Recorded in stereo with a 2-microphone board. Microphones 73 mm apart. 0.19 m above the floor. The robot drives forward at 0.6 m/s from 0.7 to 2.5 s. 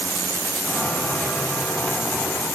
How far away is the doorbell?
No doorbell in this recording.